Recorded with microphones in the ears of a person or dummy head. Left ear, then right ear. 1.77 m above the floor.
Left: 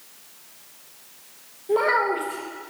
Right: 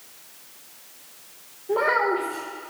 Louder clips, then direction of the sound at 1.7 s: Left 1 dB; 10° left (ahead or behind).